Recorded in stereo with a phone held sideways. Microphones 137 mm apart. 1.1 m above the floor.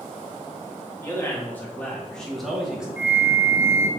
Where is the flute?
15° right (ahead or behind), 0.6 m.